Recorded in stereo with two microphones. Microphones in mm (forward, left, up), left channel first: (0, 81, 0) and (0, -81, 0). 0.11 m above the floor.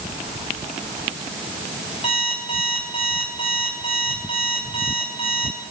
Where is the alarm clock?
35° left (ahead or behind), 6 m.